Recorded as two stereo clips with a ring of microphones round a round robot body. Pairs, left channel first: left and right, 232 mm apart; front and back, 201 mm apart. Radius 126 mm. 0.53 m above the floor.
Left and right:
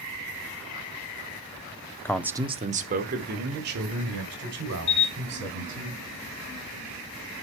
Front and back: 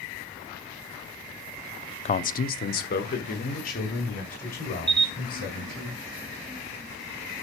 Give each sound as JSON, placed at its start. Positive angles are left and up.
{"t": 2.0, "sound": "a man speaking", "azimuth_deg": 20, "distance_m": 0.7}
{"t": 4.9, "sound": "a camera shutter", "azimuth_deg": 120, "distance_m": 2.5}